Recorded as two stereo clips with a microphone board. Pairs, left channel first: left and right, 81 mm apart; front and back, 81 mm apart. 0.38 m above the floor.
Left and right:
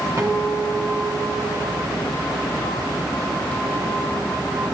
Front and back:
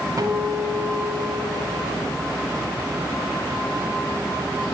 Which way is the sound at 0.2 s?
140° right.